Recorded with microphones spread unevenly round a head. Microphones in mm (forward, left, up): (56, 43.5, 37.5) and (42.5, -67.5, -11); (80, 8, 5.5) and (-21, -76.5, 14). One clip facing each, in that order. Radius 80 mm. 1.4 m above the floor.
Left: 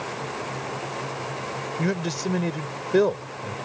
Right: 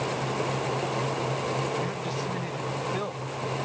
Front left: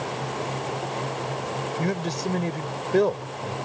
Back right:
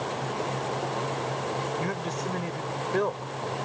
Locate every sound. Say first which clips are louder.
1.8 s a man speaking: left 4 dB, front left 4 dB; 105° left